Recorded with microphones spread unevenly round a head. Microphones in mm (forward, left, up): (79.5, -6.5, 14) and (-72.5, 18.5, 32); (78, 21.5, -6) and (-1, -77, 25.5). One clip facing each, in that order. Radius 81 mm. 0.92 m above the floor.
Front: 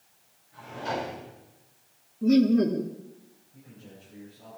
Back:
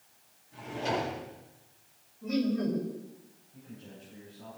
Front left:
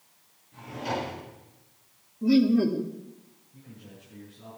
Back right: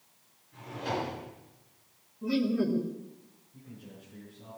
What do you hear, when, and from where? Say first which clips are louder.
0.5 s a drawer: back 1 dB, front left 2 dB; 105° left, 9.5 m
2.2 s laughter: front 9 dB, front left 7 dB; 10° left, 1.6 m
3.5 s a man speaking: back 1 dB, even; 70° left, 9 m